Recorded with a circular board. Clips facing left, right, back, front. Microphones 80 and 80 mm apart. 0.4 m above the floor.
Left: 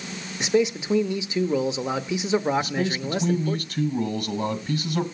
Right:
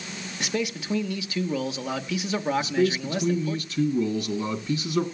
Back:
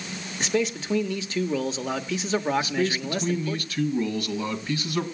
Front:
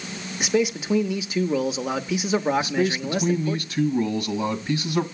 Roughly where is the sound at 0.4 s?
Ahead left.